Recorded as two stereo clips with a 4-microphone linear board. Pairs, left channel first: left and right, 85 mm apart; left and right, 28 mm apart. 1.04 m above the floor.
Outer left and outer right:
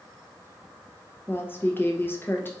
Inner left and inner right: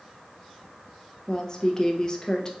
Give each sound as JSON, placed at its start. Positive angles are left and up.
{"t": 1.3, "sound": "a woman speaking", "side_deg": 25, "distance_m": 0.7}